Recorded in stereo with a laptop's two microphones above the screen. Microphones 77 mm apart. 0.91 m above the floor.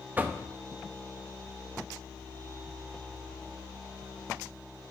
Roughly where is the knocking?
Right.